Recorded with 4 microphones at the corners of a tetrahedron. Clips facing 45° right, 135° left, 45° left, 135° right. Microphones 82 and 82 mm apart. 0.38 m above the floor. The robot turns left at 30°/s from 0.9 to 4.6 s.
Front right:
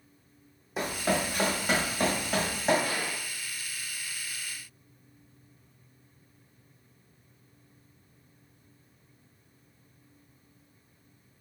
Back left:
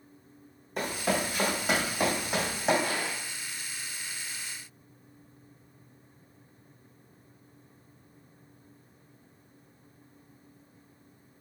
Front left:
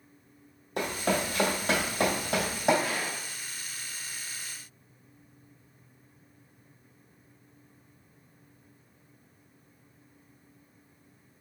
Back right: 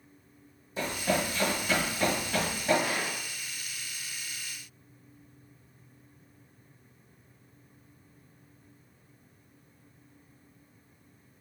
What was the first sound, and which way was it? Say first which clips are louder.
Running footsteps: front right 1 dB, front left 1 dB; 40° left.